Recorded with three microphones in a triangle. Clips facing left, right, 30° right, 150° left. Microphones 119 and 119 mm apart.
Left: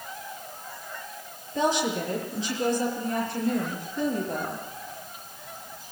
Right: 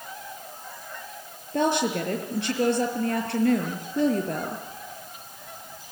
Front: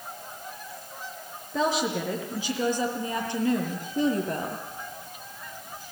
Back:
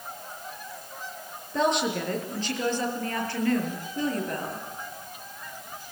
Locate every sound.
1.5 s a woman speaking: 115° right, 6.5 m; by 4.6 s 95° right, 6.5 m